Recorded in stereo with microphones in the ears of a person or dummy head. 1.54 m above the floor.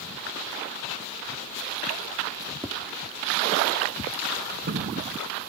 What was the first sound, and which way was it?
Tapping, 10° right (ahead or behind).